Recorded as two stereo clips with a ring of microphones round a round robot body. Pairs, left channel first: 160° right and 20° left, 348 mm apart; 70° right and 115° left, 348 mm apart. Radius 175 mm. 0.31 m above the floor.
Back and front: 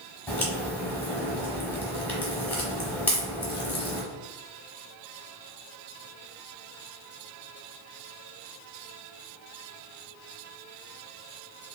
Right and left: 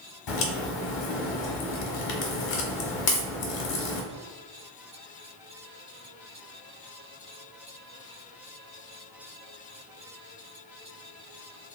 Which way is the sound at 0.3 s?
75° right.